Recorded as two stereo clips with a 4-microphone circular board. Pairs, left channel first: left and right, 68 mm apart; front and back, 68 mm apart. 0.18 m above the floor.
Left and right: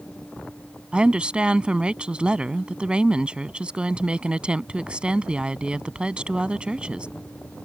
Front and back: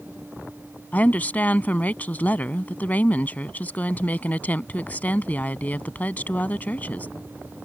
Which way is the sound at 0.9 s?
35° right.